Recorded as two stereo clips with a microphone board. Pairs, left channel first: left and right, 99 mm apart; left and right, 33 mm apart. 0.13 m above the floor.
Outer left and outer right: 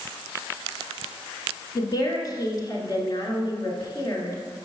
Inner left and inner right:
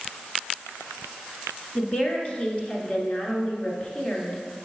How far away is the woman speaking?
About 1.6 m.